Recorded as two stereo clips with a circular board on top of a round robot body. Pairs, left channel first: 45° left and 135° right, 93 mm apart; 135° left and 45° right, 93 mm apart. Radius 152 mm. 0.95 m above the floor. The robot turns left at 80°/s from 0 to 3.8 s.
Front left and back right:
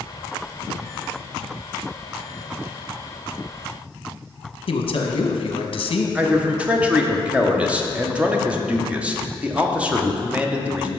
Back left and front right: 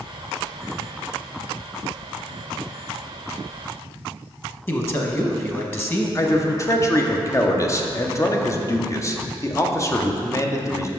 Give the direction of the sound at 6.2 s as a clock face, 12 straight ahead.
7 o'clock.